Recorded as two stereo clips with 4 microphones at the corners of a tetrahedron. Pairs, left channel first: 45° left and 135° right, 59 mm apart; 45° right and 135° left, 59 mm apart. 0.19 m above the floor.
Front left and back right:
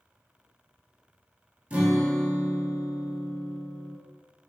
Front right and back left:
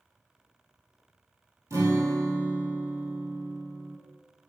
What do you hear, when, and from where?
1.7 s a guitar: 160° left, 1.0 m